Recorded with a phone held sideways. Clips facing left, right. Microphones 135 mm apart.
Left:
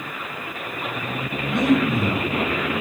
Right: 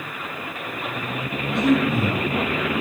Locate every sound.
1.5 s breathing: 60° left (ahead or behind), 0.9 m